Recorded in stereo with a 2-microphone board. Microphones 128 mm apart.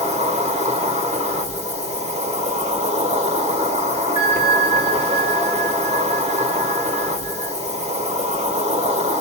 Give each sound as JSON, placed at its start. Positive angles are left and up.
{"t": 0.0, "sound": "an insect", "side_deg": -55, "distance_m": 1.2}
{"t": 4.2, "sound": "a bell", "side_deg": -50, "distance_m": 2.0}